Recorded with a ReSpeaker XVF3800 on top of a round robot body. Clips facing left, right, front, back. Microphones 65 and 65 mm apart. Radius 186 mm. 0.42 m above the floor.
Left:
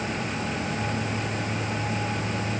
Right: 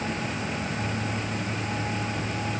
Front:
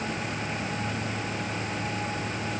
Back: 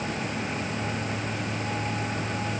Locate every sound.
Only background noise.